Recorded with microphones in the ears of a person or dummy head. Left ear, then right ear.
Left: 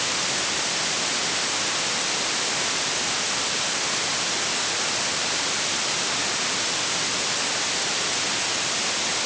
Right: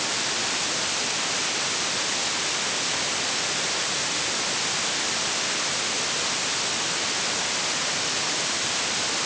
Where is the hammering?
No hammering in this recording.